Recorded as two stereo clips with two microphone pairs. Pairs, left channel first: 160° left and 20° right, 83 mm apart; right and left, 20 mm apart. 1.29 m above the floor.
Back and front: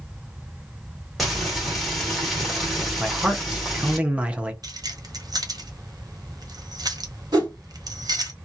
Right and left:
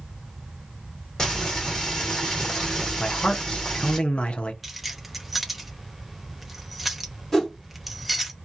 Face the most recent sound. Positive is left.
turn(degrees=-25)